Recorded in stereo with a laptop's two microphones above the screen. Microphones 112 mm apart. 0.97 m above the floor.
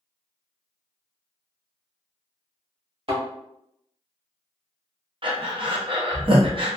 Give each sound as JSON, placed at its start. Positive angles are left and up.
{"t": 3.1, "sound": "a thud", "side_deg": -55, "distance_m": 1.2}
{"t": 5.2, "sound": "breathing", "side_deg": -50, "distance_m": 0.6}